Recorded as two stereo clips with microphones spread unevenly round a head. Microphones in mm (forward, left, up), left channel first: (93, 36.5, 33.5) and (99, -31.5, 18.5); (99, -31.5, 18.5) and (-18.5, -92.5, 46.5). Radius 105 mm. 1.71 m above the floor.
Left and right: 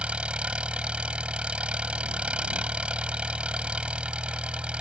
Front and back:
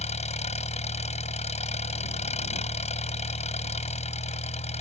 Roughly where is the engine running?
Ahead.